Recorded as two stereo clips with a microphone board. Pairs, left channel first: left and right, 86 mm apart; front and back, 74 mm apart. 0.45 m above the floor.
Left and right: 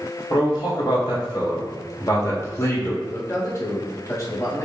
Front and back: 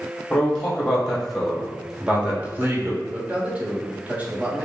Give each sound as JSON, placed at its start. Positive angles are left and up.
{"t": 0.3, "sound": "a man speaking", "azimuth_deg": 75, "distance_m": 1.6}
{"t": 3.0, "sound": "a man speaking", "azimuth_deg": 120, "distance_m": 0.9}